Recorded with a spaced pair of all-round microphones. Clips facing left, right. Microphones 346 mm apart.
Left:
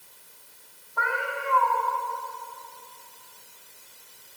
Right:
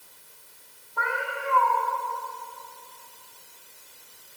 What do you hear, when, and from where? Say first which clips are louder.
1.0 s a cat meowing: left 1 dB; 45° right (ahead or behind), 2.0 m